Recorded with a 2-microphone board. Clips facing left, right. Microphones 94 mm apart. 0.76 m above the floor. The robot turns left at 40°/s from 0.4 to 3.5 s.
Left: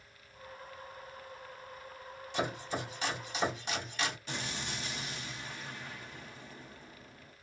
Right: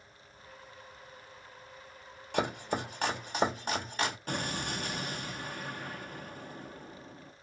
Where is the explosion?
50° right (ahead or behind), 0.5 m.